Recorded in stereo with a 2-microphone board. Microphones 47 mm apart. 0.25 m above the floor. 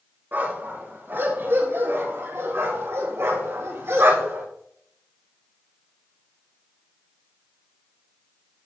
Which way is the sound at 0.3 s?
45° right (ahead or behind).